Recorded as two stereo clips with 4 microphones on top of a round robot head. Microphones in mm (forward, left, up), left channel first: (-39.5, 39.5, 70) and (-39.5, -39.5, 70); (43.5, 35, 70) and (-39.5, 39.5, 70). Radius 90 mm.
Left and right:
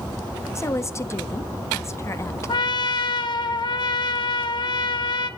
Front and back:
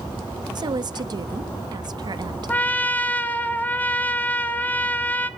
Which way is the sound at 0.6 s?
145° left.